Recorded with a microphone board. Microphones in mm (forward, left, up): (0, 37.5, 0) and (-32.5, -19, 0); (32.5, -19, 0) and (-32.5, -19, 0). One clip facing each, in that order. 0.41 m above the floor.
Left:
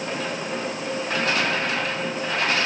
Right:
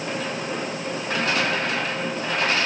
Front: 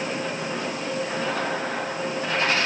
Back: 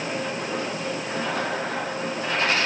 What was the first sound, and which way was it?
Only background noise.